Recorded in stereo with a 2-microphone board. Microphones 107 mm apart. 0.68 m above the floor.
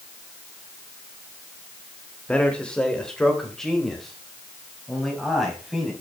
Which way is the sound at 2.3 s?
10° left (ahead or behind).